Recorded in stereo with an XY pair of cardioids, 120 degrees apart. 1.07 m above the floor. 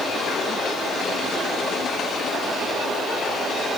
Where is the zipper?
No zipper in this recording.